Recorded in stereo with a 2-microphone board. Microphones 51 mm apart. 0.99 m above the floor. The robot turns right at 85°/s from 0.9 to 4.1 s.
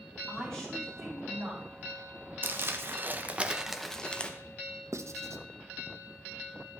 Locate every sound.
0.3 s a woman speaking: 165° left, 5.5 m; by 1.6 s 130° right, 5.5 m
2.4 s crumpling: 115° right, 0.8 m; by 4.3 s 30° left, 0.8 m
4.9 s writing: 70° right (ahead or behind), 0.6 m